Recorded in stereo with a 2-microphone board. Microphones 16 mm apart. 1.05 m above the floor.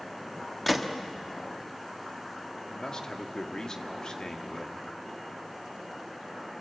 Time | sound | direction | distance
0.7 | a gunshot | 5° left (ahead or behind) | 1.5 m
2.7 | a man speaking | 45° left (ahead or behind) | 2 m